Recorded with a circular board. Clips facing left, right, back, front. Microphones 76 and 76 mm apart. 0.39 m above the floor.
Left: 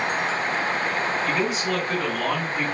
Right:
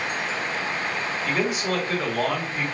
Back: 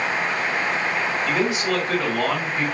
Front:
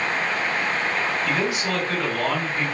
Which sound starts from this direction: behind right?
A man speaking, at 1.2 s.